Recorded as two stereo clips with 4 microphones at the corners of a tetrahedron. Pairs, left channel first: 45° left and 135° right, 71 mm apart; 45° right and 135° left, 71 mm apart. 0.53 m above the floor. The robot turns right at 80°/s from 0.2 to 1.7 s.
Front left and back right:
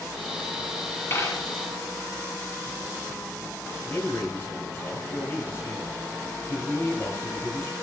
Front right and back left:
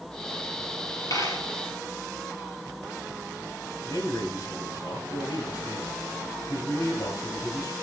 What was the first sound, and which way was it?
A dropped coin, 10° right.